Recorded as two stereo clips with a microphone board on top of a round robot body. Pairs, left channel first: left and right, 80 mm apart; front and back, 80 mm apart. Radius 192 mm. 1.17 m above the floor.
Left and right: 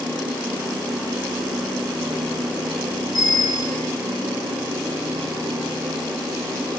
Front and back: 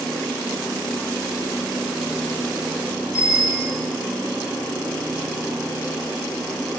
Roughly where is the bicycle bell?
Ahead left.